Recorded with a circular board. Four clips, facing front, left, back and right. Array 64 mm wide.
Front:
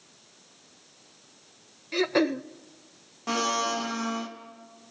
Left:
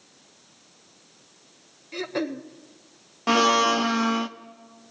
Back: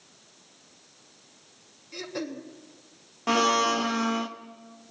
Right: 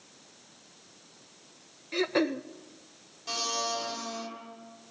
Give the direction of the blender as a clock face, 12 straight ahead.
8 o'clock.